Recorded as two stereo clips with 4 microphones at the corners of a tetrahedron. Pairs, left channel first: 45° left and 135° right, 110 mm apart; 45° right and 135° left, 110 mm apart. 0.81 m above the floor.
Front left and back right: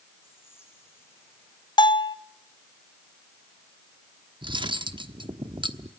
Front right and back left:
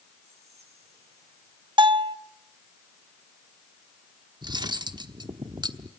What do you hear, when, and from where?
0.2 s whispering: 115° left, 8 m
1.8 s a bell: 90° left, 0.6 m
4.4 s cutlery clinking: straight behind, 1.0 m